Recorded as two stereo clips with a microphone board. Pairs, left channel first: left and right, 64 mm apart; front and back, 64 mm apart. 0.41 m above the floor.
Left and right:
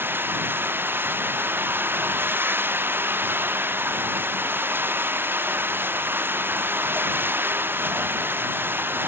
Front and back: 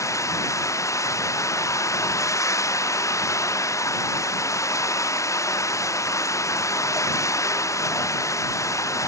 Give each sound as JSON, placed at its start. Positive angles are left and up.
{"t": 0.0, "sound": "running water", "azimuth_deg": -35}